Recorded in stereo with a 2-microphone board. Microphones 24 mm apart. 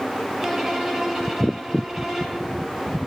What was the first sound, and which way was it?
A violin, 35° right (ahead or behind).